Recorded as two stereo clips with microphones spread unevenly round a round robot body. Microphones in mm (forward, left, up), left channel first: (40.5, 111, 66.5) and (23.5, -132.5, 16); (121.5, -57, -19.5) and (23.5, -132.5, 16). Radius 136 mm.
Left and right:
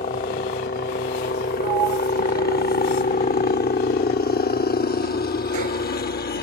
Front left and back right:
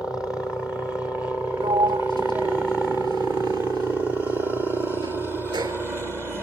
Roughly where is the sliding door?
Right.